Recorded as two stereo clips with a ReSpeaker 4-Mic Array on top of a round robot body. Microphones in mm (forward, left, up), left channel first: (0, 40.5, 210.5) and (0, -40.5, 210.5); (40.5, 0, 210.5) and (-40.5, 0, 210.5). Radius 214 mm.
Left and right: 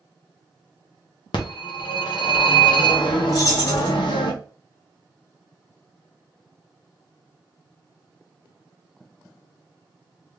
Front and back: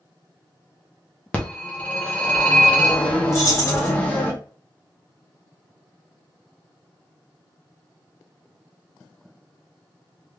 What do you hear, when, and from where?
1.3 s a phone ringing: 75° left, 0.8 m
3.3 s keys jangling: 50° left, 1.4 m